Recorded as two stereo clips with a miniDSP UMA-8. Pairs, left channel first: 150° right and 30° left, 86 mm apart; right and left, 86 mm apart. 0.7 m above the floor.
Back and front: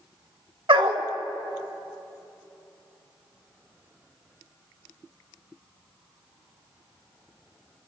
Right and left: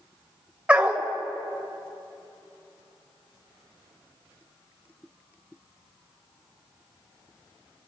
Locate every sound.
0.7 s a dog barking: 15° left, 1.0 m